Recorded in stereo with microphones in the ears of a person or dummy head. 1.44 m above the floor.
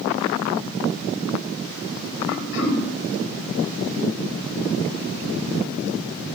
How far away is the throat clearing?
About 1.7 m.